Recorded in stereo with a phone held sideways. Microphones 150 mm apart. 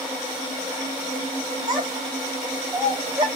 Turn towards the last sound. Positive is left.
turn(degrees=-30)  # may be behind; listen again after turning